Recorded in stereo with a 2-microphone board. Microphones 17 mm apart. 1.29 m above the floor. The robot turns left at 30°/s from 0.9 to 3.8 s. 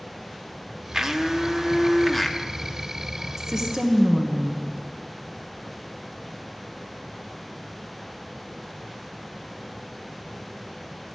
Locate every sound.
0.9 s a blender: 145° right, 0.7 m; by 2.4 s 170° left, 0.7 m
3.4 s a woman speaking: 25° right (ahead or behind), 1.1 m; by 4.6 s 35° right (ahead or behind), 1.1 m